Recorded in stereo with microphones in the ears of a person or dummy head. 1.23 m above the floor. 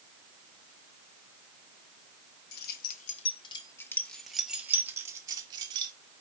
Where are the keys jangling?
60° left (ahead or behind), 1.1 m; by 5.9 s 25° right (ahead or behind), 1.8 m.